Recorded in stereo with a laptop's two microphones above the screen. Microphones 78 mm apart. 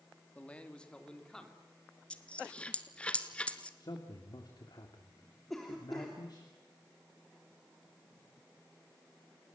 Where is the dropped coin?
15° left (ahead or behind), 1.3 m.